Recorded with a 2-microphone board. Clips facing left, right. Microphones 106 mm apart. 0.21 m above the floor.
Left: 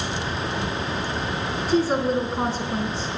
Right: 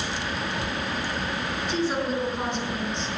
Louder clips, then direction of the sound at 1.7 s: Left 6 dB; 35° left (ahead or behind).